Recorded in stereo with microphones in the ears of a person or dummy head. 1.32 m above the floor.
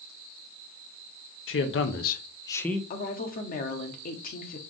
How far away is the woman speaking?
About 0.8 m.